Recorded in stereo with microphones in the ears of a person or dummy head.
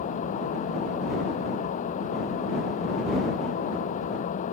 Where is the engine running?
40° left (ahead or behind).